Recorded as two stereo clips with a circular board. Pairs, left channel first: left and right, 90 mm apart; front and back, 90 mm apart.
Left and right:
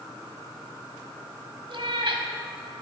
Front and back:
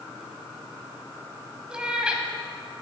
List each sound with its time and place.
1.7 s a cat meowing: 100° right, 1.0 m